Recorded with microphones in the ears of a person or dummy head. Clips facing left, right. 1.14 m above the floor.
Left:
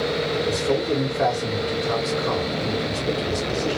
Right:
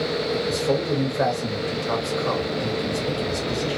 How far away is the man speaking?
About 1.7 m.